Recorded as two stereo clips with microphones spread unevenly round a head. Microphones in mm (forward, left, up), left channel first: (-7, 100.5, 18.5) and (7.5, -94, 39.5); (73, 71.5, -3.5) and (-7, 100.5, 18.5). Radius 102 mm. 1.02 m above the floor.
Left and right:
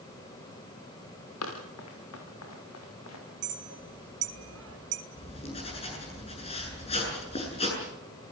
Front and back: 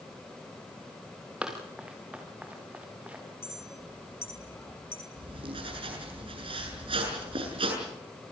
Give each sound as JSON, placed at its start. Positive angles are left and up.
{"t": 1.4, "sound": "running footsteps", "azimuth_deg": 85, "distance_m": 6.0}
{"t": 3.4, "sound": "a clink", "azimuth_deg": -100, "distance_m": 2.5}
{"t": 5.1, "sound": "writing", "azimuth_deg": 155, "distance_m": 7.5}